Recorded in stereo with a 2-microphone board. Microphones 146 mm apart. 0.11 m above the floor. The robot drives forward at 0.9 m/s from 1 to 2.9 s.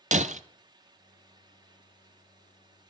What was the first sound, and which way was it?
Breaking glass, 55° right (ahead or behind).